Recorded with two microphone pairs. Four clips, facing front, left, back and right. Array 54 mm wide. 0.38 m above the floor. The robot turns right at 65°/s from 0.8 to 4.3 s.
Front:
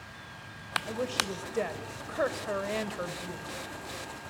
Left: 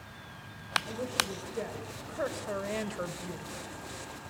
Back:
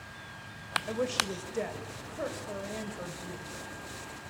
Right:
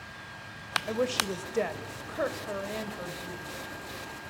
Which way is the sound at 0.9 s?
110° right.